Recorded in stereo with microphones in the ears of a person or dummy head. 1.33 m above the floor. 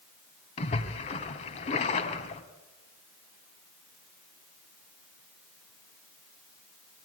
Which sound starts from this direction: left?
A splash, at 0.6 s.